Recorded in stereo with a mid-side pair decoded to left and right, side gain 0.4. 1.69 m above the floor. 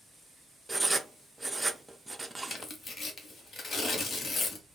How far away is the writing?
About 0.5 m.